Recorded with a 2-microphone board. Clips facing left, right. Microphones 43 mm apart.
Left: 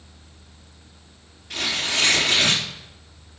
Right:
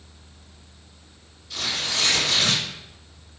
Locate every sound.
1.5 s tearing paper: 60° left (ahead or behind), 3.5 m